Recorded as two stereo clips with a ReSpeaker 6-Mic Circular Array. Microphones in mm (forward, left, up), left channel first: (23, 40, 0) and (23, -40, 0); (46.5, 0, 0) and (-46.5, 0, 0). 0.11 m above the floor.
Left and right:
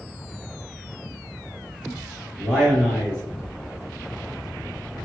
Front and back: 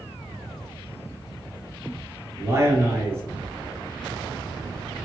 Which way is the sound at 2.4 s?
Straight behind.